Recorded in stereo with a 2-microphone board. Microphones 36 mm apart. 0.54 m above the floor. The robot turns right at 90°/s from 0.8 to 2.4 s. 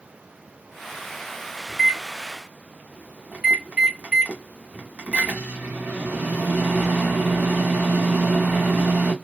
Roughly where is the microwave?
Behind.